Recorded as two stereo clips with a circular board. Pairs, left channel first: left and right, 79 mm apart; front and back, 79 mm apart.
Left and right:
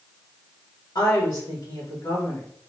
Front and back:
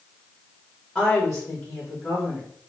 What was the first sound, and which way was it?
A woman speaking, 85° left.